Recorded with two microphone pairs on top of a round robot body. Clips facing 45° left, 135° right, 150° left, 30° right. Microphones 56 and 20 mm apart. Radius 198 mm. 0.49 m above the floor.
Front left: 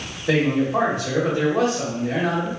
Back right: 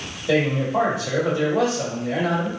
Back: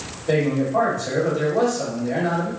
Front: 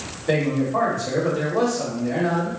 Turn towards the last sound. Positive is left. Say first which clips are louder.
# front left 1 dB, back 1 dB
turn(degrees=30)